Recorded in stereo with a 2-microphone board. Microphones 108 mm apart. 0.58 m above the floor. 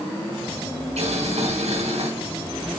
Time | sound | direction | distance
1.0 | boiling | 80° right | 4.5 m